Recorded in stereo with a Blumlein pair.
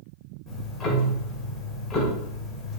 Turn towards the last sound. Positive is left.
turn(degrees=20)